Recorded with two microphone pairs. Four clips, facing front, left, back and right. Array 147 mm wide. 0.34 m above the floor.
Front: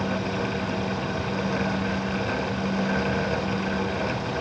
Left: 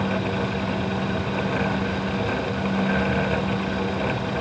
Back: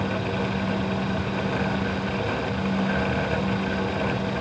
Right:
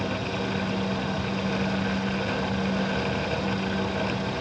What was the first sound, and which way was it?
Only background noise.